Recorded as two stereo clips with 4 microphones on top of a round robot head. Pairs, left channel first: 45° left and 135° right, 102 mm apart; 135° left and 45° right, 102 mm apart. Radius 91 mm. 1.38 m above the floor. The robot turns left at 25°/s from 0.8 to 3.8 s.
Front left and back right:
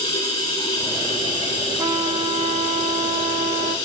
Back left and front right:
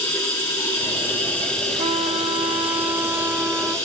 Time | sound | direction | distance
0.0 | running water | 75° left | 4.5 m
1.8 | a trumpet | 80° right | 0.5 m